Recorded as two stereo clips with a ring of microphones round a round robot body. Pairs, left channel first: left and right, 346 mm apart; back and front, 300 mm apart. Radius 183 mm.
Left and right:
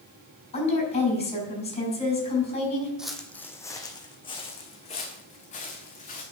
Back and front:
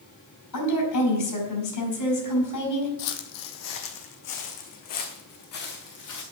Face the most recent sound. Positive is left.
turn(degrees=160)